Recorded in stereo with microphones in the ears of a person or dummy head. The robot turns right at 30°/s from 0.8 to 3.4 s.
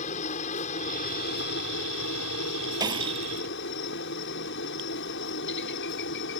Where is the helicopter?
40° left (ahead or behind); by 6.4 s 60° left (ahead or behind).